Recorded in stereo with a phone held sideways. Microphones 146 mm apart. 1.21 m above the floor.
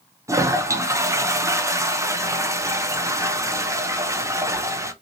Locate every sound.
0.3 s a toilet flushing: 20° right (ahead or behind), 0.5 m